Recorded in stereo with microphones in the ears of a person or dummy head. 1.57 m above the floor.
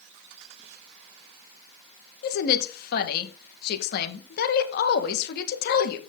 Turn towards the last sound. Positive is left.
turn(degrees=55)  # may be behind; listen again after turning